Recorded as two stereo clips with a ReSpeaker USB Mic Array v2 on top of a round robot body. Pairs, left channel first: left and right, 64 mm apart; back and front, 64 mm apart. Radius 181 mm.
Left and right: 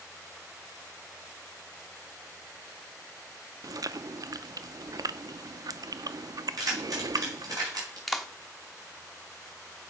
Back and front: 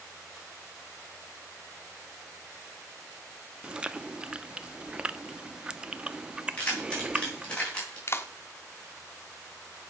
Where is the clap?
Straight behind, 1.1 m.